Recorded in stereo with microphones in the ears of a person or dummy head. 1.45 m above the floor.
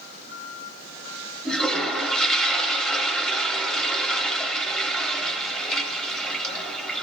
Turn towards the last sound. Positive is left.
turn(degrees=5)  # may be behind; listen again after turning